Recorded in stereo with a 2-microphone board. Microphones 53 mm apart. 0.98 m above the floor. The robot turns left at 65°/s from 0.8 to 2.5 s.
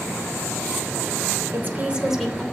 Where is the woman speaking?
135° right, 3 m; by 2.4 s 170° left, 3 m.